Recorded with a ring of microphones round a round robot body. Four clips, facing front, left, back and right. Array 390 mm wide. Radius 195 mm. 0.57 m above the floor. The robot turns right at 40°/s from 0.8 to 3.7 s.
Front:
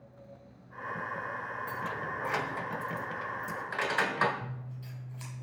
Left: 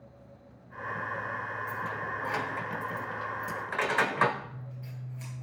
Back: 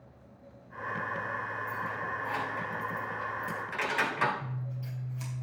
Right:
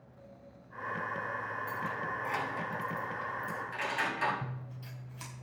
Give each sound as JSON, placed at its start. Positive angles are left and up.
{"t": 1.7, "sound": "keys jangling", "azimuth_deg": -5, "distance_m": 1.7}
{"t": 4.4, "sound": "scissors", "azimuth_deg": -85, "distance_m": 5.0}